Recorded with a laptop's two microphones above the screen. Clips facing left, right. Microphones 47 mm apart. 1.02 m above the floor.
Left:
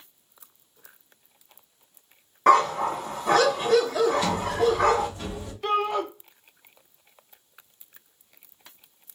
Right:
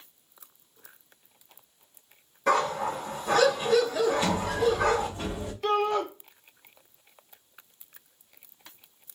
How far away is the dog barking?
About 1.0 m.